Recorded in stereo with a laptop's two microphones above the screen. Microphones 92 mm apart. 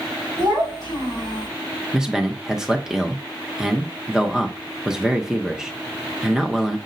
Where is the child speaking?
70° right (ahead or behind), 3 m.